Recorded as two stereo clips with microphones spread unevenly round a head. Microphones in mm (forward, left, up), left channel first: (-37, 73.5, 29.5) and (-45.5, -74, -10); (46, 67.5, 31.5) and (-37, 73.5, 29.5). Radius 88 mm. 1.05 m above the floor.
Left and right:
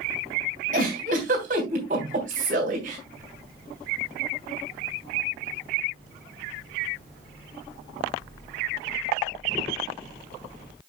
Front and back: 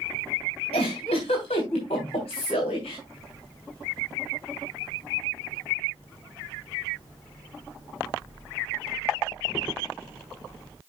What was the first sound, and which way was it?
A giggle, 40° right.